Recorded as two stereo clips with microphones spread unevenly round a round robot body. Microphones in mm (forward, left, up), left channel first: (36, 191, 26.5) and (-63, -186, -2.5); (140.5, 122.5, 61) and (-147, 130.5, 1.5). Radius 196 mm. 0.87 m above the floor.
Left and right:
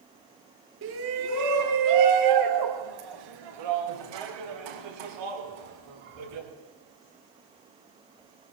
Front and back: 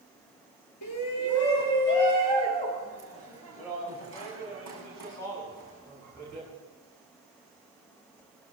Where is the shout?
45° right, 2 m; by 6.5 s 85° right, 8.5 m.